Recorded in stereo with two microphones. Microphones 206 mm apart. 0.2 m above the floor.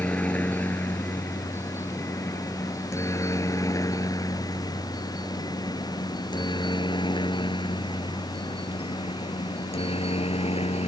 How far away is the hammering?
I don't hear hammering.